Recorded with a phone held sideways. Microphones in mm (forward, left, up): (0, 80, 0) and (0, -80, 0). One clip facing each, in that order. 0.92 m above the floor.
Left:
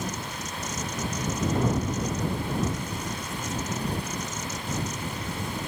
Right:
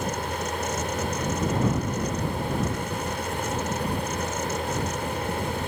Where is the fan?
60° right (ahead or behind).